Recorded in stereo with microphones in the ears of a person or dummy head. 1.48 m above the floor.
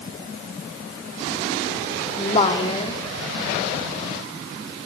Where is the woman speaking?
30° left (ahead or behind), 3.5 m.